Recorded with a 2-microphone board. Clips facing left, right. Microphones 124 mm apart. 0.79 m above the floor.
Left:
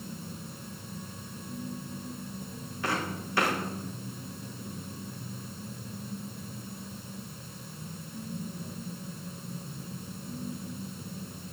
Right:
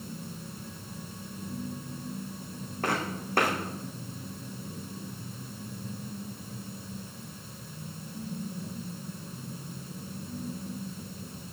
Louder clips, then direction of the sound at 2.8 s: Right 1 dB; 50° right (ahead or behind).